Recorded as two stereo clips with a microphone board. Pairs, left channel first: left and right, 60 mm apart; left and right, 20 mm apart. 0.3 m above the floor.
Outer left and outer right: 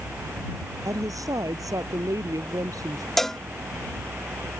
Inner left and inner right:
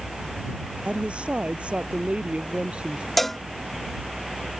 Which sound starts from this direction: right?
A woman speaking, at 0.8 s.